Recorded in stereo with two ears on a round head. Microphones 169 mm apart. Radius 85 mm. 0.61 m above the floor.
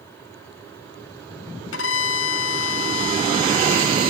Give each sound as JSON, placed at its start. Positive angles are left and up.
{"t": 1.7, "sound": "a violin", "side_deg": 75, "distance_m": 1.2}